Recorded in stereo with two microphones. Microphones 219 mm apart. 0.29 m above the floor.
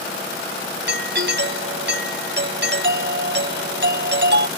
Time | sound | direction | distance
0.9 | a doorbell | 55° right (ahead or behind) | ?